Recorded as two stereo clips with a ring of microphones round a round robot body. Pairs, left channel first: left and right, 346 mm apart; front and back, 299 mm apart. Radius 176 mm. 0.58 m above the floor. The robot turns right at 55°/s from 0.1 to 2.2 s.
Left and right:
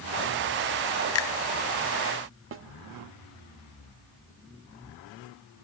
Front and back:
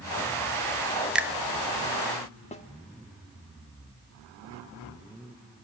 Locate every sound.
1.1 s a finger snap: 95° left, 0.5 m; by 1.4 s 105° left, 0.5 m
2.5 s a snare drum: 60° right, 1.4 m